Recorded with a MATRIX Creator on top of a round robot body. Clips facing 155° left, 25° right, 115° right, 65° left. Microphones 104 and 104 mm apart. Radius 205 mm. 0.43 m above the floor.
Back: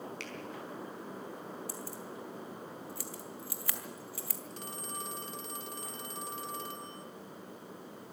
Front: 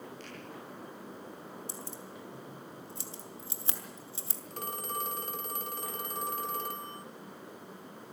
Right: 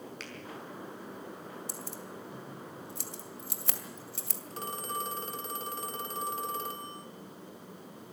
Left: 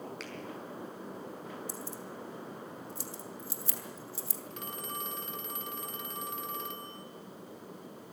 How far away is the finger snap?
About 4.5 m.